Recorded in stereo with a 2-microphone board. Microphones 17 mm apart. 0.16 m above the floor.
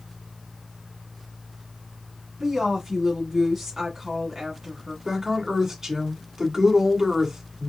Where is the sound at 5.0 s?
30° right (ahead or behind), 1.3 m.